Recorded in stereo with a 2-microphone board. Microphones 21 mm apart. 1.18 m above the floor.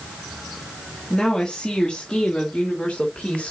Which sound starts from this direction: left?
A woman speaking, at 1.1 s.